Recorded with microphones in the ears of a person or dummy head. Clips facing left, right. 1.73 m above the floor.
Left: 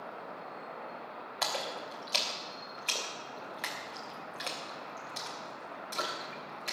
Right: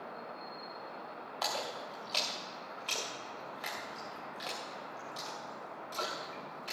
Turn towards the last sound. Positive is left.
turn(degrees=30)  # may be behind; listen again after turning